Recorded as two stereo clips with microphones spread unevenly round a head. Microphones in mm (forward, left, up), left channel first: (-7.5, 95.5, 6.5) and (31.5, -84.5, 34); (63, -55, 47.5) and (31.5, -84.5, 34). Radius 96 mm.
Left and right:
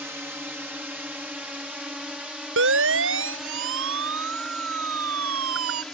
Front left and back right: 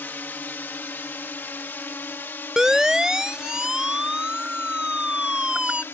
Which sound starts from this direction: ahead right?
A siren, at 2.6 s.